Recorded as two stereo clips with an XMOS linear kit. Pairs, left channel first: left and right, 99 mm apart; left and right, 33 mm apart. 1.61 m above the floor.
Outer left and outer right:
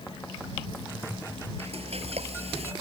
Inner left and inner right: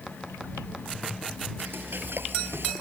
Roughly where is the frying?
Right.